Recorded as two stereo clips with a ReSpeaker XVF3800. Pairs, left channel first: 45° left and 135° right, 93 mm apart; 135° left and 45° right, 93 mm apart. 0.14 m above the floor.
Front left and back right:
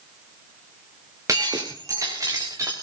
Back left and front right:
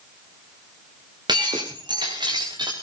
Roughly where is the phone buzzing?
I don't hear a phone buzzing.